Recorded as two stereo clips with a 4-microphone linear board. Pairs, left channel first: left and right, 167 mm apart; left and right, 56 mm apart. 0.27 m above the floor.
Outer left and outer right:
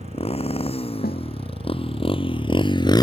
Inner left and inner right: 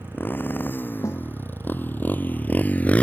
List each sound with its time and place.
0.0 s a motorcycle: 35° left (ahead or behind); by 3.0 s 25° left (ahead or behind)
1.0 s a snare drum: 60° left (ahead or behind)